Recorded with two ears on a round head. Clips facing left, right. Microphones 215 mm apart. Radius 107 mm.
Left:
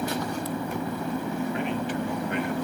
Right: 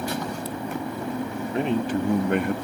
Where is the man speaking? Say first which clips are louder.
Right 4 dB; 30° right (ahead or behind); by 2.5 s 50° right (ahead or behind).